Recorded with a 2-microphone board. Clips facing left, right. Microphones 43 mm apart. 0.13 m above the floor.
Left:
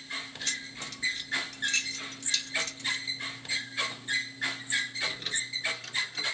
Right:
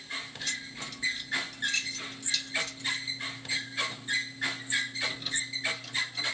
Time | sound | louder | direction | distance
0.5 | keys jangling | even | 50° left (ahead or behind) | 1.3 m